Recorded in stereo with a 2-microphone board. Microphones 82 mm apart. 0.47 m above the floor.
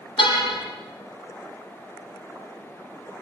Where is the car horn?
90° left, 7 m.